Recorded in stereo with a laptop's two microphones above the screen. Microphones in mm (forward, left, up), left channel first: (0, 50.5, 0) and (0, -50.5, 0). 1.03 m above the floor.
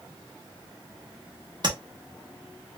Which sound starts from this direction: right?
Tapping, at 1.6 s.